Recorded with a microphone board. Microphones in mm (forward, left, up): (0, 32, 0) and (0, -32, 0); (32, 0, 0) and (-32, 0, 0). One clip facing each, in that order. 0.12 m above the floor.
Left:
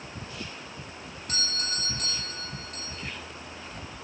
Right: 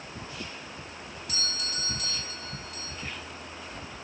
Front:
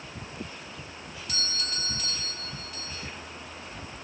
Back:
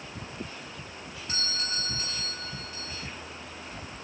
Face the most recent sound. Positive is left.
turn(degrees=125)